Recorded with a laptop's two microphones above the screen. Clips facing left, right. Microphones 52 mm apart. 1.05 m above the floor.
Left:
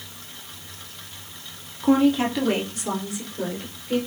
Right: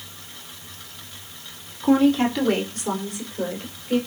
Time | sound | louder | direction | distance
1.8 | a woman speaking | right 1 dB | 10° left (ahead or behind) | 3 m